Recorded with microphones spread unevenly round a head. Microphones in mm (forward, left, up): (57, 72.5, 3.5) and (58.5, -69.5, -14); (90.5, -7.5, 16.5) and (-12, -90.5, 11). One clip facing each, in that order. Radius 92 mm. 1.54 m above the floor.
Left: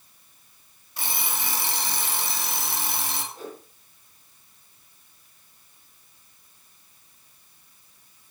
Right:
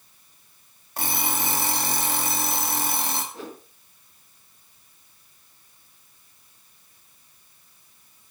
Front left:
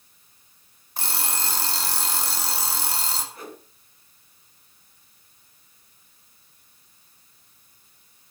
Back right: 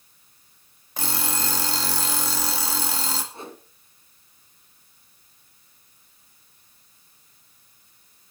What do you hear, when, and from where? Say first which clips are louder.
1.0 s an alarm clock: right 5 dB, back right 3 dB; 150° right, 1.9 m
3.3 s a whoosh: right 1 dB, back right 1 dB; 80° right, 2.5 m